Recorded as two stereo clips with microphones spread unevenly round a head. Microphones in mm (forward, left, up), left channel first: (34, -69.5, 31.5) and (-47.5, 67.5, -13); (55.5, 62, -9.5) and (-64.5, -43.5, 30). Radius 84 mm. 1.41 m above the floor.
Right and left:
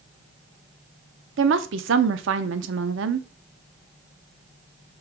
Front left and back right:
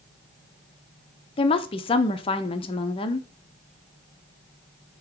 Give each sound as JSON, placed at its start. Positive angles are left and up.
{"t": 1.4, "sound": "a woman speaking", "azimuth_deg": 105, "distance_m": 0.5}